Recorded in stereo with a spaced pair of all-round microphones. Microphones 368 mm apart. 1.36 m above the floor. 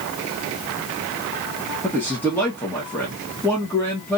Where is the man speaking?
5° left (ahead or behind), 1.3 m.